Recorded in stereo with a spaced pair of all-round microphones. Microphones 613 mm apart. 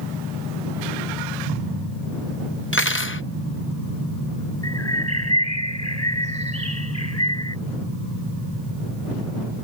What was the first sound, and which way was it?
Cutlery clinking, 20° left (ahead or behind).